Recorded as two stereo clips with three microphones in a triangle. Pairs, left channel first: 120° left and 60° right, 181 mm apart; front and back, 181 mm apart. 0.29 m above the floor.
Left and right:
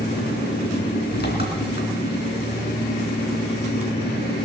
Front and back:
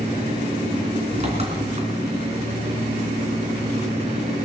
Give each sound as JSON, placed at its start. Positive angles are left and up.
{"t": 0.0, "sound": "an engine running", "azimuth_deg": 130, "distance_m": 3.0}